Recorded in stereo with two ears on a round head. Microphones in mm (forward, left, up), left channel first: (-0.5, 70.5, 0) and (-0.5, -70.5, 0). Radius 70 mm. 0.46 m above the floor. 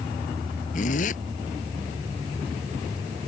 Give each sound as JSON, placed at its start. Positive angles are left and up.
{"t": 0.7, "sound": "a zipper", "side_deg": 55}